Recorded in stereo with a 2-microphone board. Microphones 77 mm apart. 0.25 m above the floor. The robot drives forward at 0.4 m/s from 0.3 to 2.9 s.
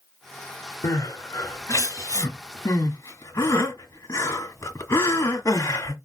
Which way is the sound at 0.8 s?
45° left (ahead or behind).